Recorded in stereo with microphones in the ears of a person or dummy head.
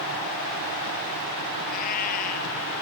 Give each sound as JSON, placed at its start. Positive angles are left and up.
{"t": 1.7, "sound": "a cat meowing", "side_deg": 40}